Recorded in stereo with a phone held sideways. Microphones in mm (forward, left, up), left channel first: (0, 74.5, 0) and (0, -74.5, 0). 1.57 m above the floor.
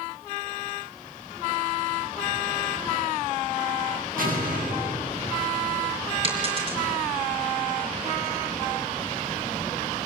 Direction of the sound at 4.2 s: 70° right (ahead or behind).